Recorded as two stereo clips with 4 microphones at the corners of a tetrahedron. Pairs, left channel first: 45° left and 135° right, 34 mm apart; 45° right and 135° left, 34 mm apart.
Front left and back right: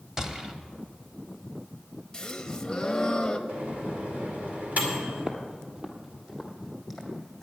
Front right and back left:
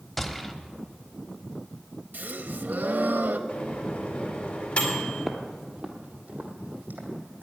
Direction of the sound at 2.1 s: 120° left.